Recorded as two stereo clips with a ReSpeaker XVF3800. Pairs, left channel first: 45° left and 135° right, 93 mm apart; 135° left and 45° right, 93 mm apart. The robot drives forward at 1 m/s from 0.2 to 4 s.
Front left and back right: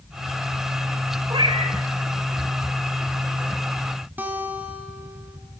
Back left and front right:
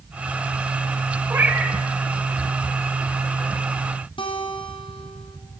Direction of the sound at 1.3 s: 105° right.